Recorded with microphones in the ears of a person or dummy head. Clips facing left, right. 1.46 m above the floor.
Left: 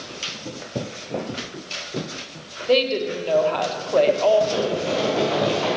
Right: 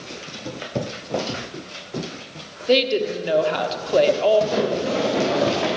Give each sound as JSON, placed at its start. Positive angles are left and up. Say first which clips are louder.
{"t": 2.7, "sound": "a woman speaking", "louder": "right 1 dB", "side_deg": -20, "distance_m": 1.4}
{"t": 4.5, "sound": "running footsteps", "louder": "right 1 dB", "side_deg": -15, "distance_m": 4.5}